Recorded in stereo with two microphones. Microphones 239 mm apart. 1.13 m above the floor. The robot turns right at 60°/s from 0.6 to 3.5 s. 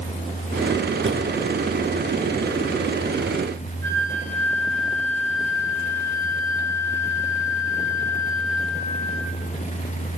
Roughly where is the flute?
Right.